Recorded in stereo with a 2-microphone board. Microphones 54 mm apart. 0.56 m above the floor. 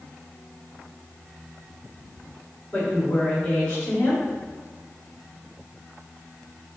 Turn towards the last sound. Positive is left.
turn(degrees=15)  # may be behind; listen again after turning